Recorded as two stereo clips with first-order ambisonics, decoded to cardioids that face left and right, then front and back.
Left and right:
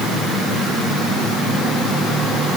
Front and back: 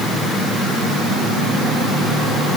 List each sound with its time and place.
Only background noise.